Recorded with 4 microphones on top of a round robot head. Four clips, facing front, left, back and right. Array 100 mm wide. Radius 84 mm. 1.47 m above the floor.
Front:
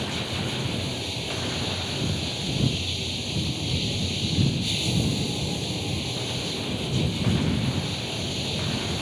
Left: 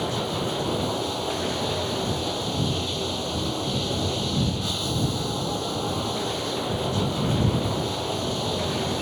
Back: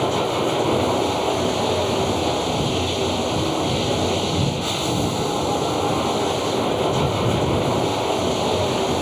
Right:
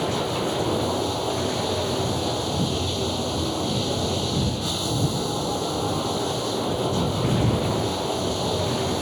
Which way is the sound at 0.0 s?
175° right.